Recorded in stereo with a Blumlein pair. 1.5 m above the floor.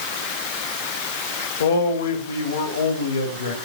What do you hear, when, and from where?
1.6 s a man speaking: 65° left, 3 m